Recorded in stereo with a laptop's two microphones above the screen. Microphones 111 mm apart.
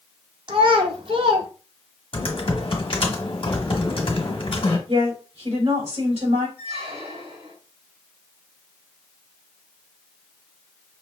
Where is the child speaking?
55° right (ahead or behind), 1.1 m.